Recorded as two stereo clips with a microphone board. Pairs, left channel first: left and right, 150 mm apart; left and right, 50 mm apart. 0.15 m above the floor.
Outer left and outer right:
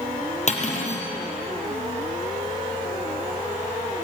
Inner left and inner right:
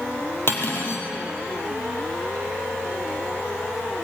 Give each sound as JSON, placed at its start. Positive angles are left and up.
{"t": 0.5, "sound": "cutlery clinking", "side_deg": 50, "distance_m": 3.0}